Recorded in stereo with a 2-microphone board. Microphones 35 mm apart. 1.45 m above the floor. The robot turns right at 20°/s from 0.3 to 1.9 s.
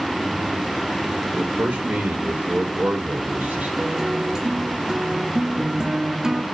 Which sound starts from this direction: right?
A man speaking, at 1.3 s.